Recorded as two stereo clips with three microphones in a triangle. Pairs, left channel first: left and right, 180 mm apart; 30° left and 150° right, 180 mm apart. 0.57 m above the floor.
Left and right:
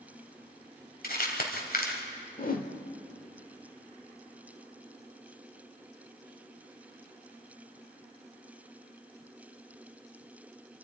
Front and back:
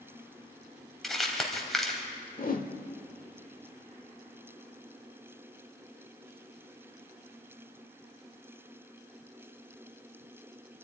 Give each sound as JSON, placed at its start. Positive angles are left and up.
{"t": 1.0, "sound": "crumpling", "azimuth_deg": 120, "distance_m": 3.0}
{"t": 2.4, "sound": "a whoosh", "azimuth_deg": 60, "distance_m": 1.3}